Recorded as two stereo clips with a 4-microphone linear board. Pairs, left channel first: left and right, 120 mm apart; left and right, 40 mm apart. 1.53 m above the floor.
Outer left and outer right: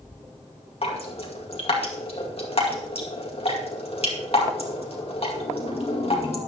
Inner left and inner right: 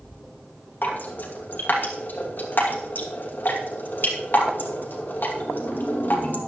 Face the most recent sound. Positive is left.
turn(degrees=55)  # may be behind; listen again after turning